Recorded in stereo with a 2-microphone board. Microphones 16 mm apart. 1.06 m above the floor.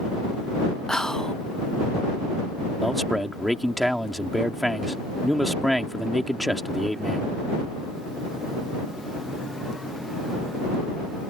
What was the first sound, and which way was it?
Whispering, 40° left (ahead or behind).